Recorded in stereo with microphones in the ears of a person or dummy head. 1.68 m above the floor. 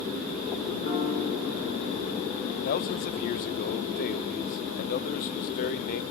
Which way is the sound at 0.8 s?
45° left (ahead or behind).